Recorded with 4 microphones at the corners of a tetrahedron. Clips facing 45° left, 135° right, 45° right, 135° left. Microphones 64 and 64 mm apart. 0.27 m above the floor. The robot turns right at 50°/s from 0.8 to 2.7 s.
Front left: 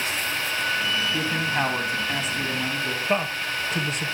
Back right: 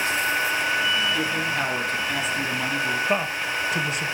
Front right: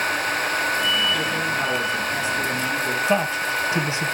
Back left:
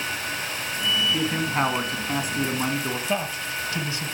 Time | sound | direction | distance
1.1 | a man speaking | 80° left | 2.5 m
3.1 | a woman speaking | 55° right | 0.9 m